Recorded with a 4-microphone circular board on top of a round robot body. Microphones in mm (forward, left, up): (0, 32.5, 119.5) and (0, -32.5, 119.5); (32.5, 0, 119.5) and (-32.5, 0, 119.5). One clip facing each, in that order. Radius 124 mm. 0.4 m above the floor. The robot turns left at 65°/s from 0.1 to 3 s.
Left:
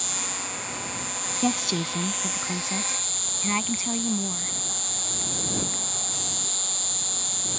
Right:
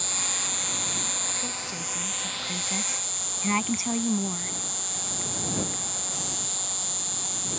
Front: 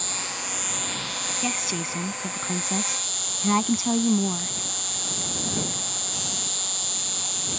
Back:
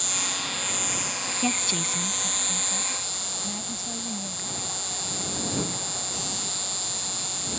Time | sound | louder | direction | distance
0.0 | an insect | left 1 dB, back 1 dB | 50° right | ?
1.4 | a woman speaking | left 10 dB, back 2 dB | 95° left | ?